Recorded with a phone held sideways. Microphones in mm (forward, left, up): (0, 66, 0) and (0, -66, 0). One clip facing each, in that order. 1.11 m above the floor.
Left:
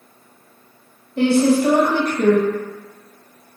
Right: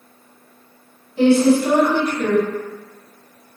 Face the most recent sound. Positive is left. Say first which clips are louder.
# right 2 dB
turn(degrees=65)  # may be behind; listen again after turning